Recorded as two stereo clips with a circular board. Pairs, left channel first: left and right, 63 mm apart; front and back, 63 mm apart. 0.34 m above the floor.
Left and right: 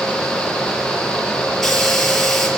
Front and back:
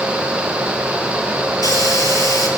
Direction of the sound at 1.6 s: 5° left.